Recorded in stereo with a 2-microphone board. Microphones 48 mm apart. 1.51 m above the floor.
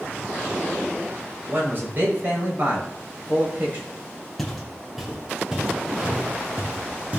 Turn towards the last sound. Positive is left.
turn(degrees=-25)  # may be behind; listen again after turning